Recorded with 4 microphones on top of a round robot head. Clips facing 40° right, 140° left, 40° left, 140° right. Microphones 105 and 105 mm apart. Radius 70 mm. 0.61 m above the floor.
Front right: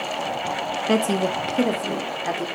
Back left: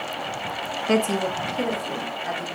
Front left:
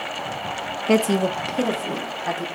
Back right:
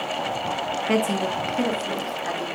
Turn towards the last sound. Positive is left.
turn(degrees=-40)